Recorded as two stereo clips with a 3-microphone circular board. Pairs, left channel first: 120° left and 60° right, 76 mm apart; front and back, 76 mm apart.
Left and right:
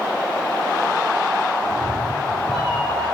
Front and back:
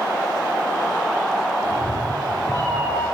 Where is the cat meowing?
55° left, 6.5 m.